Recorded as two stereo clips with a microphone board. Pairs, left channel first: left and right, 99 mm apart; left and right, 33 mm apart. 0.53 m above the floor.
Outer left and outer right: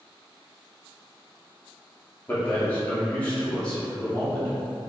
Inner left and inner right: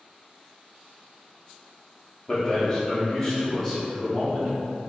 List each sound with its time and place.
2.3 s a man speaking: 20° left (ahead or behind), 0.7 m; by 4.5 s 10° left (ahead or behind), 2.5 m